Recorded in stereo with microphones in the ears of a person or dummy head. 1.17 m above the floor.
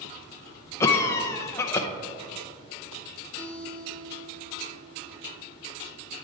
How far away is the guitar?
About 1.6 m.